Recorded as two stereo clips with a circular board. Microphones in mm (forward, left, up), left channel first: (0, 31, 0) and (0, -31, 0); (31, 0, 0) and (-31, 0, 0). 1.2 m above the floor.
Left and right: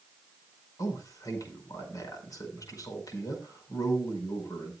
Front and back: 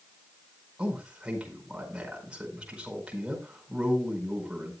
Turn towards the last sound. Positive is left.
turn(degrees=105)